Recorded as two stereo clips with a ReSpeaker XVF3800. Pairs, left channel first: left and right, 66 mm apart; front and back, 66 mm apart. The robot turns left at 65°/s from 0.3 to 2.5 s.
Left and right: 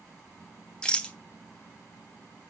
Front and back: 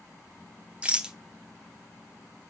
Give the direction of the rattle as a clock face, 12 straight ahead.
7 o'clock.